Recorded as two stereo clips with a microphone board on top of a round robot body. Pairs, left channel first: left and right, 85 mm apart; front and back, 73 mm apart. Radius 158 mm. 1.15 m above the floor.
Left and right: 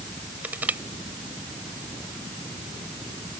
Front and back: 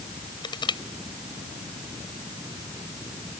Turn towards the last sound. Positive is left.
turn(degrees=-20)